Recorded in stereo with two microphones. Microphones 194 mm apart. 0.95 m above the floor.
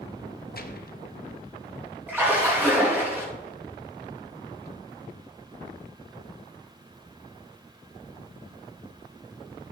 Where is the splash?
10° right (ahead or behind), 4.5 m.